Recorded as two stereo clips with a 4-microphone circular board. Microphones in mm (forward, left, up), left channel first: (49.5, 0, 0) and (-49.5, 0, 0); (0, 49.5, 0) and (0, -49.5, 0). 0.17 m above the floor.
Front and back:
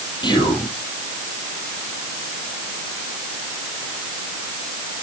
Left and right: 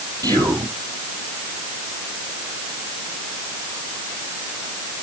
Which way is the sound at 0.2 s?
40° right.